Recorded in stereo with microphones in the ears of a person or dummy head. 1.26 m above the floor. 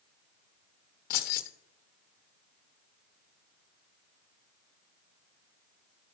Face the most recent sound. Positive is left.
turn(degrees=45)  # may be behind; listen again after turning